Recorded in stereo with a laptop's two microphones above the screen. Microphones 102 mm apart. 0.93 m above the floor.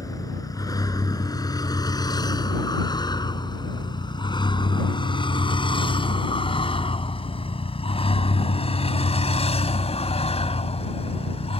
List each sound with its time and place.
0.0 s a vehicle: 35° left (ahead or behind); by 11.6 s 75° left (ahead or behind)